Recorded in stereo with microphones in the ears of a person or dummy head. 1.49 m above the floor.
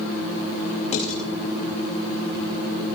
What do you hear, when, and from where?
0.9 s dishes clattering: 35° left (ahead or behind), 7.5 m